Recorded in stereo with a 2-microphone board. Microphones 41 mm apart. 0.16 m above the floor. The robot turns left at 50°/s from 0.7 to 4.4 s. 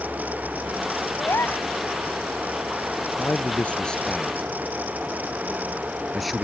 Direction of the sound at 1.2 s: 60° left (ahead or behind).